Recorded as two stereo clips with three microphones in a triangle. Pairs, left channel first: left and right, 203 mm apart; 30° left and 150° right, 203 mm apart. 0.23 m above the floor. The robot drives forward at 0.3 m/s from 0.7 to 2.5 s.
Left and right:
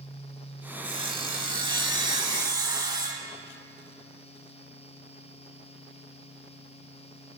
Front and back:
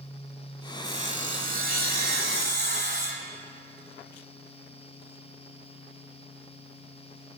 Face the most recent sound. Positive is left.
turn(degrees=-155)